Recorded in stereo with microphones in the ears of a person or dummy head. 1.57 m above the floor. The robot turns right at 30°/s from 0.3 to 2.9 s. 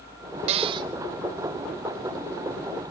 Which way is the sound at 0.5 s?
35° right (ahead or behind).